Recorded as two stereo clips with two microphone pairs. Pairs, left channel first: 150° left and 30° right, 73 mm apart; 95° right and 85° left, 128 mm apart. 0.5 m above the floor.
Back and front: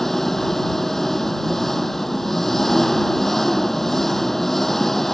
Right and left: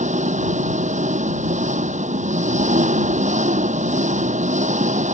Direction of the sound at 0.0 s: 65° left.